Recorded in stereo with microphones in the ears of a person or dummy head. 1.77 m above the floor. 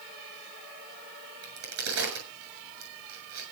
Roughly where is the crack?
Right.